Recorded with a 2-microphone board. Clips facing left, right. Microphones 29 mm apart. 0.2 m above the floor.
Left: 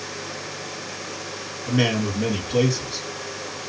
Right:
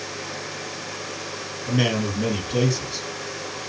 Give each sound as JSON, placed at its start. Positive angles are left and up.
{"t": 1.7, "sound": "a man speaking", "side_deg": 10, "distance_m": 1.3}